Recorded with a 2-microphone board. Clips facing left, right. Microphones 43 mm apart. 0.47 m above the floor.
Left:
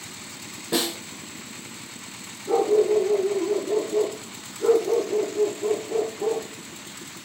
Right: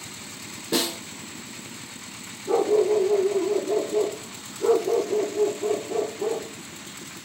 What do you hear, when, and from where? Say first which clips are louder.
0.7 s a snare drum: even; 10° left (ahead or behind), 2 m
2.5 s a dog barking: left 1 dB; 10° left (ahead or behind), 2.0 m